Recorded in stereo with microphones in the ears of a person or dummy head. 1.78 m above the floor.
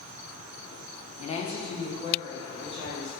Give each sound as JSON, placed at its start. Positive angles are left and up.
{"t": 1.2, "sound": "a woman speaking", "side_deg": 40, "distance_m": 0.8}